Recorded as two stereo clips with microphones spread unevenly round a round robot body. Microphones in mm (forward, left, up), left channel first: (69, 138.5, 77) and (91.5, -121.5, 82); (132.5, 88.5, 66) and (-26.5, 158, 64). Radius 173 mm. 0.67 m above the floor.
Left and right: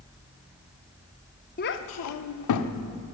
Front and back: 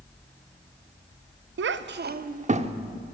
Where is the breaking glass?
I don't hear breaking glass.